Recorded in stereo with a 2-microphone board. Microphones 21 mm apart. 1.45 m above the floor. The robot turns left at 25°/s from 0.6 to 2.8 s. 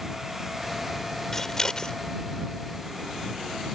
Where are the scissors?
15° left (ahead or behind); by 2.0 s 35° left (ahead or behind).